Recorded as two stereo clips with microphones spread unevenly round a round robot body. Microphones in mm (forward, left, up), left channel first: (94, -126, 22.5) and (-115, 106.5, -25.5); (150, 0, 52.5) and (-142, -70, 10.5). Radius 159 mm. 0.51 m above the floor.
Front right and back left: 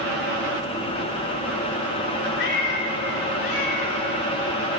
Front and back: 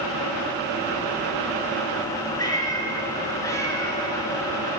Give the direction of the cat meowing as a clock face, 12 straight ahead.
2 o'clock.